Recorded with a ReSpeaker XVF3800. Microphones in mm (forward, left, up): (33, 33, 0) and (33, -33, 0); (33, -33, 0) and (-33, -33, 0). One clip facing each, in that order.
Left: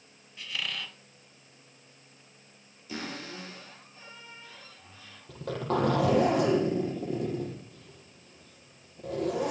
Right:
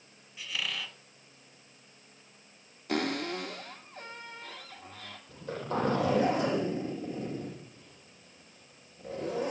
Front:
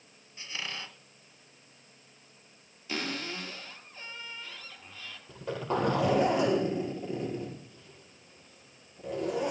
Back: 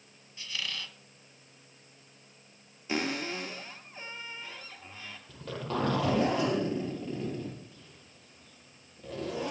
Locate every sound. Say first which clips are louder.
0.4 s a squeak: even, even; 10° right, 0.7 m
2.9 s a cupboard door: right 7 dB, back 3 dB; 115° right, 2.5 m
5.3 s a zipper: left 4 dB, front 3 dB; 75° left, 7 m